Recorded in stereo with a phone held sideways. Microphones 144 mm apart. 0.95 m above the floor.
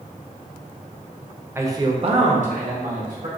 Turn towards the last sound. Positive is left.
turn(degrees=-65)  # may be behind; listen again after turning